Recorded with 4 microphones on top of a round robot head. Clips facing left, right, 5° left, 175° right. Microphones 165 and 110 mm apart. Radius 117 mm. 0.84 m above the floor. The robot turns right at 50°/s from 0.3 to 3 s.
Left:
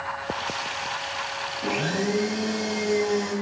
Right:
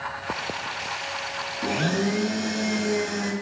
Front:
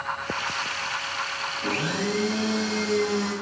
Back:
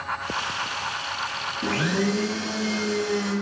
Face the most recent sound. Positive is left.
turn(degrees=-75)